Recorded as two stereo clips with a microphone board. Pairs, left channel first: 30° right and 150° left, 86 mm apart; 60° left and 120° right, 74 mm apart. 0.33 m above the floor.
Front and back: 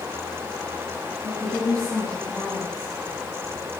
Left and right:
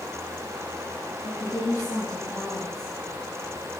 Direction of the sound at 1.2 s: 20° left.